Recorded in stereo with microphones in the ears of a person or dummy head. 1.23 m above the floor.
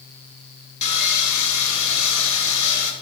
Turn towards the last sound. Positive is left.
turn(degrees=65)  # may be behind; listen again after turning